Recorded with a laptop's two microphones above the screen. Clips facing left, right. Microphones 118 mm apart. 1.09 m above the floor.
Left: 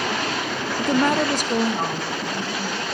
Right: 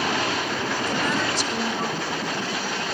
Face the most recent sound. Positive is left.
turn(degrees=30)  # may be behind; listen again after turning